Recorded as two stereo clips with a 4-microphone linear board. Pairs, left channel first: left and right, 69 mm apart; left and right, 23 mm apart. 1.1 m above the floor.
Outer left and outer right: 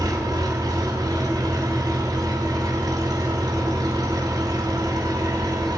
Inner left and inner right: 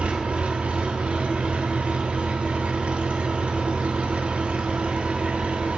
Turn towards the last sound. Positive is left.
turn(degrees=-70)  # may be behind; listen again after turning